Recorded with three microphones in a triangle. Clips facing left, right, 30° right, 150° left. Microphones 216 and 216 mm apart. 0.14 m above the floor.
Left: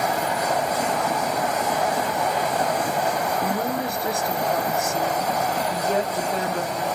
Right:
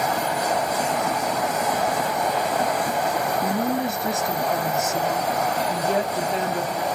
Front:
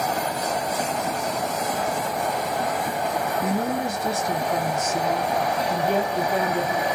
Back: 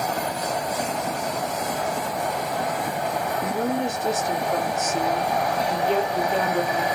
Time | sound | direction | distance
3.4 | a woman speaking | 85° right | 1.2 m